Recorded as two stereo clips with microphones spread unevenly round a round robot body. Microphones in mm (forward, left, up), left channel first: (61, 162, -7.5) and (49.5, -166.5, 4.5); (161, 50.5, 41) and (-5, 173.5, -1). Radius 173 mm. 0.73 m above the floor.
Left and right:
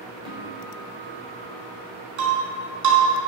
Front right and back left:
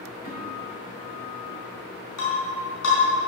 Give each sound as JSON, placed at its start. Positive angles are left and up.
{"t": 0.2, "sound": "a guitar", "azimuth_deg": -15, "distance_m": 4.5}
{"t": 2.2, "sound": "breaking glass", "azimuth_deg": -60, "distance_m": 4.5}